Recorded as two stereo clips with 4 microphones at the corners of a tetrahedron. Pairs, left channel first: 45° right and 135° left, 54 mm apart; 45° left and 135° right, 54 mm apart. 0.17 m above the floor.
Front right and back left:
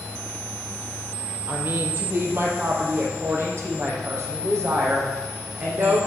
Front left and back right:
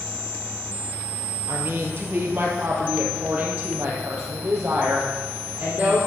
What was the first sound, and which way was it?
A woman speaking, straight behind.